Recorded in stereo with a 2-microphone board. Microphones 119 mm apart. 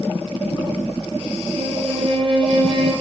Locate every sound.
1.6 s a violin: 40° right (ahead or behind), 2 m